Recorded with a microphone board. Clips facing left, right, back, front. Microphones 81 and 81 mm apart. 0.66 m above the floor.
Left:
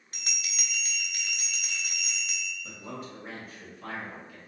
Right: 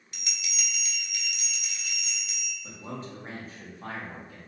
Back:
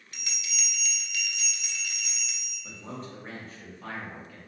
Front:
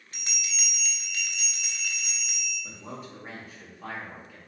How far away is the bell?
About 0.6 m.